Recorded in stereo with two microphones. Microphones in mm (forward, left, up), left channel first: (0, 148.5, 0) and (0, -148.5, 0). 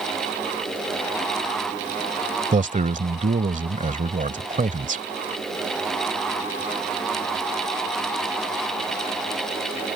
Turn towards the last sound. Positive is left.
turn(degrees=-25)  # may be behind; listen again after turning